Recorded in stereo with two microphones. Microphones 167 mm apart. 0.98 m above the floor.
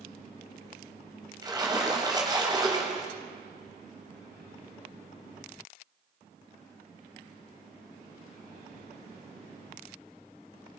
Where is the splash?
25° right (ahead or behind), 4 m.